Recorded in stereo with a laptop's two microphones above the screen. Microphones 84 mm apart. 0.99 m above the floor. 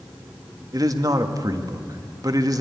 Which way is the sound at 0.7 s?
45° right (ahead or behind).